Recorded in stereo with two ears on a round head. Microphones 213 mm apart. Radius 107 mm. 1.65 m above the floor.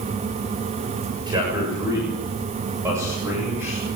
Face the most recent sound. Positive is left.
turn(degrees=-10)  # may be behind; listen again after turning